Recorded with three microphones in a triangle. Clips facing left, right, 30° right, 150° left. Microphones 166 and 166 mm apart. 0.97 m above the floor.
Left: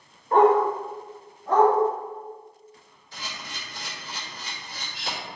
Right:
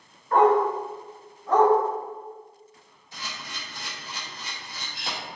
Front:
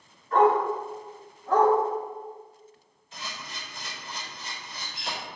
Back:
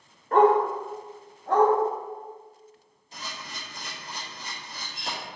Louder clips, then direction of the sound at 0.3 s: Left 1 dB, back 2 dB; 145° left.